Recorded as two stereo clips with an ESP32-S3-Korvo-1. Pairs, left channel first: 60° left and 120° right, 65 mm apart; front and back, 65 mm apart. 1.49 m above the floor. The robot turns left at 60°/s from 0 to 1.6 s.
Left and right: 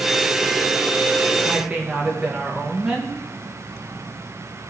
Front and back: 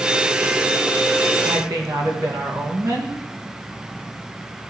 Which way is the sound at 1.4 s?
175° left.